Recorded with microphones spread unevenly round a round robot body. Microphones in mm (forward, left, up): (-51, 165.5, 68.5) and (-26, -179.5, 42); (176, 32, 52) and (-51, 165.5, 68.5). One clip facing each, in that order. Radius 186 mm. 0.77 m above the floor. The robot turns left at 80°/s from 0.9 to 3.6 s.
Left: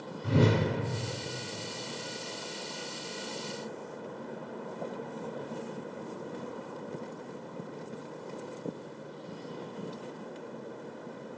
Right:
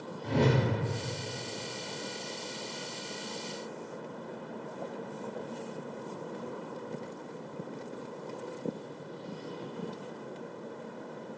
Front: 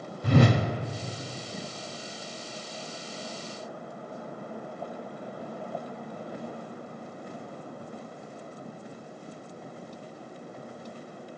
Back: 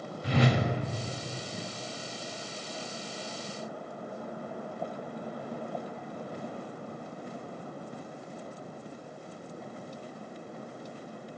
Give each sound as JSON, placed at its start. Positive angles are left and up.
{"t": 0.2, "sound": "a whoosh", "azimuth_deg": 15, "distance_m": 0.7}